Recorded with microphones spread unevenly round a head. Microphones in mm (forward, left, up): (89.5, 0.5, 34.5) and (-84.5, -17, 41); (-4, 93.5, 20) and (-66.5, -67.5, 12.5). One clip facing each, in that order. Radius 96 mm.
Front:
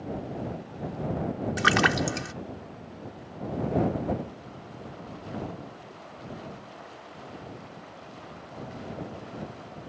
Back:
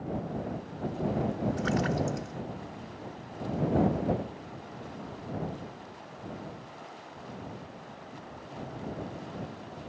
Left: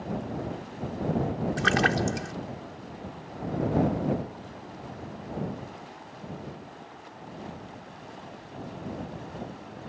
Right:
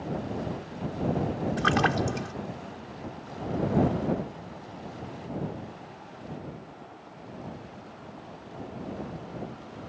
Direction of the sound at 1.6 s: 5° right.